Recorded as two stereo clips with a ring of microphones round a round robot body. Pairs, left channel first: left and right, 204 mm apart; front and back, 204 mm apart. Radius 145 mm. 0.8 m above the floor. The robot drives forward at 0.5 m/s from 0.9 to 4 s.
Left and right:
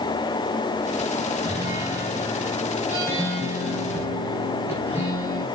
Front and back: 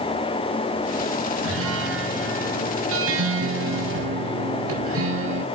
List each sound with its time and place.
1.4 s a guitar: 170° right, 2 m; by 5.5 s 175° right, 3.5 m